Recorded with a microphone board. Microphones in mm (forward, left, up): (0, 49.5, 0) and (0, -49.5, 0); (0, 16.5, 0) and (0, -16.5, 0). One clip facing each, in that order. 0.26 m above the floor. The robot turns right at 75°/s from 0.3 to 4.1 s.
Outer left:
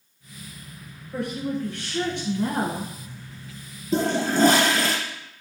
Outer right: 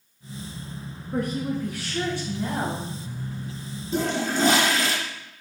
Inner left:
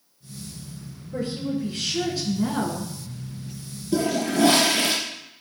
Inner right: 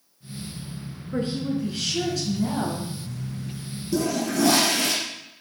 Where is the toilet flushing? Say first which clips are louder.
Outer left 3 dB, inner left 2 dB; 40° left (ahead or behind), 4.5 m; by 5.0 s 50° left (ahead or behind), 4.5 m.